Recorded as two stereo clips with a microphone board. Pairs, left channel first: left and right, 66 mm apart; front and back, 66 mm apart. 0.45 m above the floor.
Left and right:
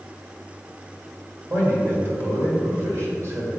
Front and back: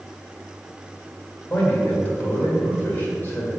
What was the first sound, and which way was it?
A man speaking, 60° right.